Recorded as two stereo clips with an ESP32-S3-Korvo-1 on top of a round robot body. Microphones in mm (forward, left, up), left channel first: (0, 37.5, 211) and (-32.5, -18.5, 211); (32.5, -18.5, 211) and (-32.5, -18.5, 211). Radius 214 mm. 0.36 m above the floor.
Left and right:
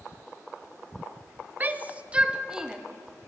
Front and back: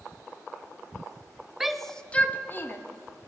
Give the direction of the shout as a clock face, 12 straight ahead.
3 o'clock.